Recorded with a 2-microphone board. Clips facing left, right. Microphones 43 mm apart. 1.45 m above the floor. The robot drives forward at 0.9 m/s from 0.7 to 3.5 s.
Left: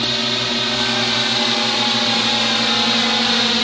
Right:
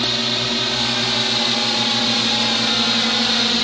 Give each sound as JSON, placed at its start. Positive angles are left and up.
{"t": 0.0, "sound": "a drone", "side_deg": 10}